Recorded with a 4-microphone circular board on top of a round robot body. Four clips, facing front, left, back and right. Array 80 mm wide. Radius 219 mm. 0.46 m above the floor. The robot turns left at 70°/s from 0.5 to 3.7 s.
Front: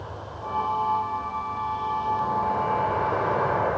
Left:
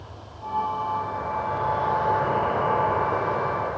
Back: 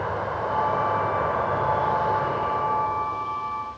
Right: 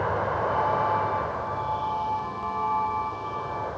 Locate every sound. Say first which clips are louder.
0.0 s an insect: right 14 dB, back 9 dB; 120° right; by 3.8 s 15° left